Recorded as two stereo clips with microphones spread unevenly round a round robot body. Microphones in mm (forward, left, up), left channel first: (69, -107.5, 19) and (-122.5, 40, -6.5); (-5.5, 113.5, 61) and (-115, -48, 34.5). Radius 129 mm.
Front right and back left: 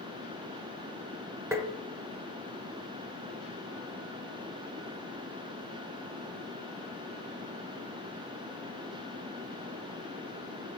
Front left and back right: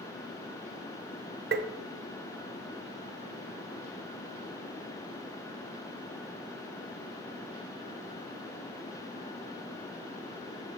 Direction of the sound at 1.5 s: 140° right.